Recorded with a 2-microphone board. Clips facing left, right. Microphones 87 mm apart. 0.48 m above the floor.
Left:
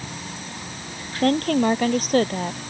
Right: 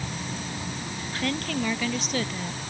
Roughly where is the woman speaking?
Left.